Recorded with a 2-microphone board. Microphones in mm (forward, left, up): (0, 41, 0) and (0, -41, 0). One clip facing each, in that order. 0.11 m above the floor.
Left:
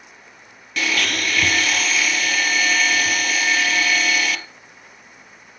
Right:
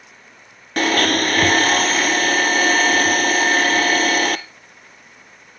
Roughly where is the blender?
Right.